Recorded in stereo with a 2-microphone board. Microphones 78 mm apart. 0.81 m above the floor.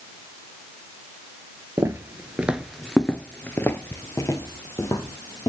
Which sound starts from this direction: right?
Footsteps, at 1.8 s.